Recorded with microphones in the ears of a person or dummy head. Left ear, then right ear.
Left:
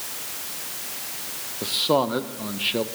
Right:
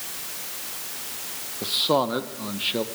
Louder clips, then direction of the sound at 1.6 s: Even; 5° right (ahead or behind).